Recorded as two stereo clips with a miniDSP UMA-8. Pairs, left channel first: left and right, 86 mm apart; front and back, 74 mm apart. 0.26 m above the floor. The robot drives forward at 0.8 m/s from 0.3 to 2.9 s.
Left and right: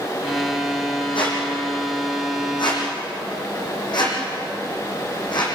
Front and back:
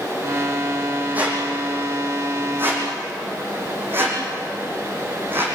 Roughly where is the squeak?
Left.